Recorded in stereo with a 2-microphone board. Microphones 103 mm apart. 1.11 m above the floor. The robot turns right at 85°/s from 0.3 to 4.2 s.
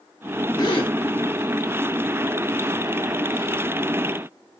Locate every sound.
0.6 s a gasp: 40° left (ahead or behind), 1.1 m; by 0.9 s 65° left (ahead or behind), 1.1 m